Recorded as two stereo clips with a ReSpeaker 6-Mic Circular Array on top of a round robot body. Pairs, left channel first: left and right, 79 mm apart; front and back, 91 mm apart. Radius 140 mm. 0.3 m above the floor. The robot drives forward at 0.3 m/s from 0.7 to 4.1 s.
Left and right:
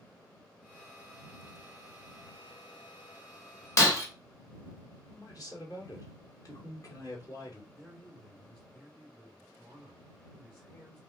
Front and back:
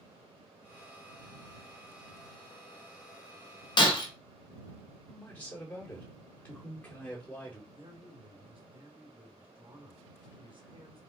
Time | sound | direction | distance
3.8 | breaking glass | 35° left | 1.7 m
5.1 | a man speaking | 70° left | 2.5 m
7.7 | a man speaking | 170° left | 2.5 m